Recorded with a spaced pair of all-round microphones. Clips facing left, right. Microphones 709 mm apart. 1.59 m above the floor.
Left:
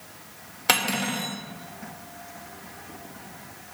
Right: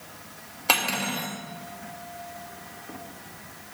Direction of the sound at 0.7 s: 45° left (ahead or behind).